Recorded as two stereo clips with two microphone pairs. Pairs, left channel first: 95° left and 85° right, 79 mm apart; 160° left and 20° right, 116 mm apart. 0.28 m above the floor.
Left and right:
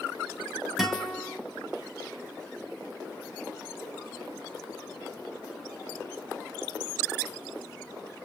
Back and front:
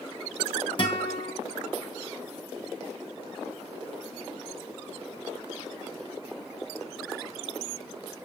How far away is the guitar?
About 1.8 m.